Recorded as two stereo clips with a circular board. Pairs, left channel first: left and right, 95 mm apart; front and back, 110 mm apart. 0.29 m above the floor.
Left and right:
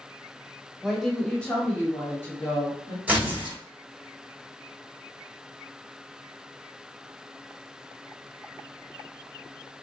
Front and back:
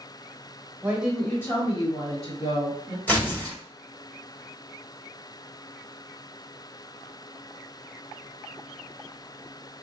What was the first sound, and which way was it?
A woman speaking, 165° right.